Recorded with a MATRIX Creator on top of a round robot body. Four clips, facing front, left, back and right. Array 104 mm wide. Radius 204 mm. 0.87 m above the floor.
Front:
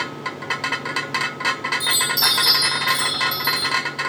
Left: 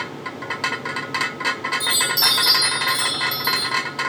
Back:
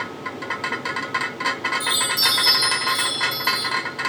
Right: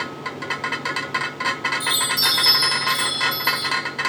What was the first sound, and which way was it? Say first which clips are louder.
A chime: left 1 dB, front 1 dB; 45° left.